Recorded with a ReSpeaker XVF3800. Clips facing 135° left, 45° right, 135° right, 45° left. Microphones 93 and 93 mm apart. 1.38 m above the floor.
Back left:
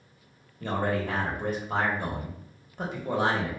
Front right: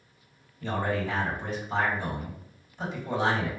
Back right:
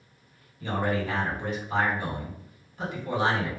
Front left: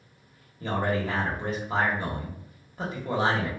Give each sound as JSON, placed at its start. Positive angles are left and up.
{"t": 0.6, "sound": "a man speaking", "azimuth_deg": 100, "distance_m": 1.1}